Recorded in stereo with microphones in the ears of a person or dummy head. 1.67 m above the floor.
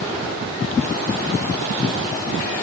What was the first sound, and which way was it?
Only background noise.